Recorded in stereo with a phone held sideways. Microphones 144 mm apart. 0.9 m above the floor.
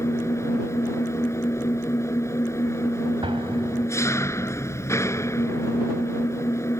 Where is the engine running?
20° left (ahead or behind).